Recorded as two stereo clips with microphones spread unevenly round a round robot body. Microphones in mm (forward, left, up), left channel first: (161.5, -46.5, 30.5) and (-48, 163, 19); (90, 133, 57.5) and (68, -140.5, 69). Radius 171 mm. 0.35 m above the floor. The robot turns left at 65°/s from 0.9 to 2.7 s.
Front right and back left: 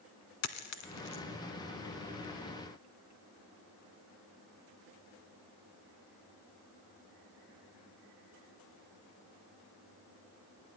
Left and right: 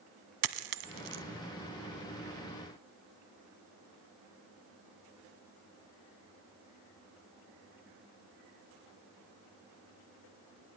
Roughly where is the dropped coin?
Right.